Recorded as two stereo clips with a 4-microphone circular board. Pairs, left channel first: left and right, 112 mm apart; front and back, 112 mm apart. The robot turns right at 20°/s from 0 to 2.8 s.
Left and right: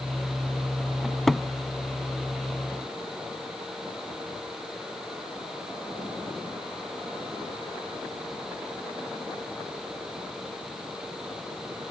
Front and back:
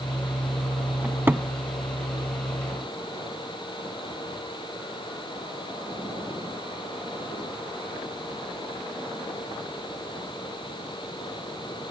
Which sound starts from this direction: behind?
A cupboard door, at 1.0 s.